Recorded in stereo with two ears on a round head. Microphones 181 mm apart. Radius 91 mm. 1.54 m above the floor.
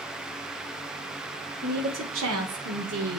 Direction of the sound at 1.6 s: 50° right (ahead or behind).